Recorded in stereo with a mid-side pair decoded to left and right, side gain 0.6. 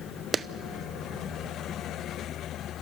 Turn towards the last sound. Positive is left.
turn(degrees=-30)